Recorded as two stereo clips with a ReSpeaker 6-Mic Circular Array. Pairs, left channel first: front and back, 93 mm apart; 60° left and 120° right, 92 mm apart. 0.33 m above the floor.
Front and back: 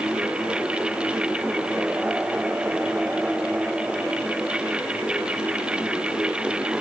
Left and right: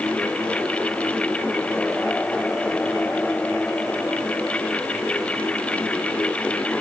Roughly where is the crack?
No crack in this recording.